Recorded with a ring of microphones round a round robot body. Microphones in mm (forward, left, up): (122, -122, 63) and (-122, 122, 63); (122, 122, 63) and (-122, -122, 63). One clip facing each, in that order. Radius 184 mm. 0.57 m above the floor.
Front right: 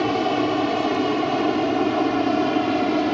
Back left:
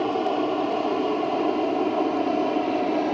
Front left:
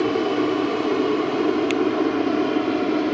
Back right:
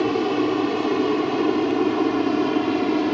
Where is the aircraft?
55° right; by 3.1 s 60° right.